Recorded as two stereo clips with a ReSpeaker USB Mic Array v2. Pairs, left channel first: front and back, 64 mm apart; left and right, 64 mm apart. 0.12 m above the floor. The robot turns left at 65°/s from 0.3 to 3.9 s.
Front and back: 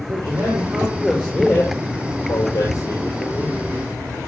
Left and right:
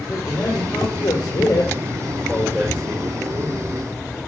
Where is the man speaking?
140° left, 8 m; by 3.6 s 75° right, 8 m.